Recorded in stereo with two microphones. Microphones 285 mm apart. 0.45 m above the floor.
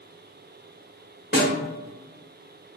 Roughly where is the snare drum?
Left.